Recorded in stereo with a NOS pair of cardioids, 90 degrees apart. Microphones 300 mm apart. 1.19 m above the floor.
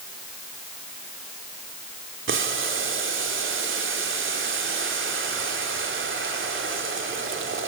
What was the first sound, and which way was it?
Boiling, 40° right.